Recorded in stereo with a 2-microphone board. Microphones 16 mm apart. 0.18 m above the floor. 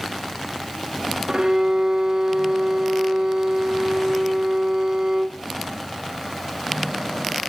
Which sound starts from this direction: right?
A violin, at 1.3 s.